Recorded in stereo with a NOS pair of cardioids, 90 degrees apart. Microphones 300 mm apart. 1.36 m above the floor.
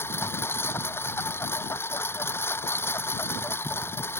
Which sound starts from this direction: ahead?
A lawn mower, at 0.0 s.